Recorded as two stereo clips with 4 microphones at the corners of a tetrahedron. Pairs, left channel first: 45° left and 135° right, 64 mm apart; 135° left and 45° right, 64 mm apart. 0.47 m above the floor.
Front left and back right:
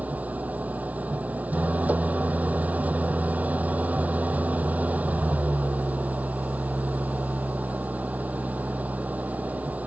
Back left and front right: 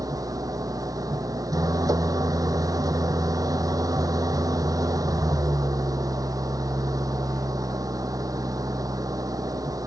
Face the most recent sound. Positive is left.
turn(degrees=-70)